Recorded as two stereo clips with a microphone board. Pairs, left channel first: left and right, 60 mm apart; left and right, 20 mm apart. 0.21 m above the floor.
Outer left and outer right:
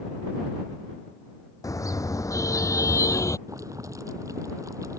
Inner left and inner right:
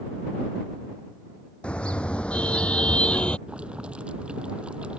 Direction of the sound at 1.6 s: 75° left (ahead or behind).